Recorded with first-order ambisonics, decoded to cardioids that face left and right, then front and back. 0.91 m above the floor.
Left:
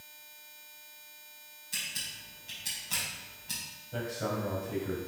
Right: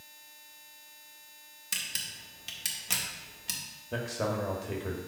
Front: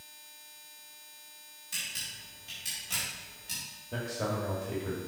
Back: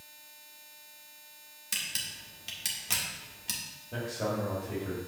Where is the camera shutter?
125° right, 1.7 m.